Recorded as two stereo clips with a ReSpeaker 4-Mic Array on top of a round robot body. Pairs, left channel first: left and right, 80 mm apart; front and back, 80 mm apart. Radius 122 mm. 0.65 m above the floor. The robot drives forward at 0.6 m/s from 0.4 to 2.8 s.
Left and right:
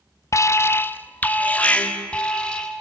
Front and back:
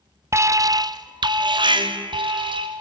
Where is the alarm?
135° left, 0.6 m; by 2.8 s 170° left, 1.8 m.